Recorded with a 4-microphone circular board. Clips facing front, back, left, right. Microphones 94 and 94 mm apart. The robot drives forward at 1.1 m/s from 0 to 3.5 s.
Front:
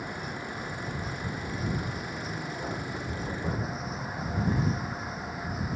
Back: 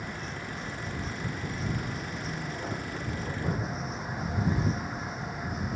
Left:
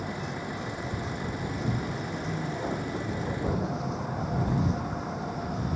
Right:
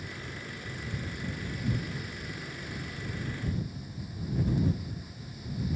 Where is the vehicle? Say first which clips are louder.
Front 2 dB, left 8 dB; 80° left; by 5.8 s 85° left.